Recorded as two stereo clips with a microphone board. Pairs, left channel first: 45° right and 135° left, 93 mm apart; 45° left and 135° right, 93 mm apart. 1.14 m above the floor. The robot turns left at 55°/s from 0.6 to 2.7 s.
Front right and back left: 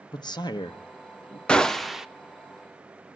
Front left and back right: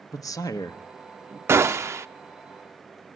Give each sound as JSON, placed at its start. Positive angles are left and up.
{"t": 0.1, "sound": "a man speaking", "azimuth_deg": -5, "distance_m": 1.0}
{"t": 1.5, "sound": "a gunshot", "azimuth_deg": -115, "distance_m": 0.6}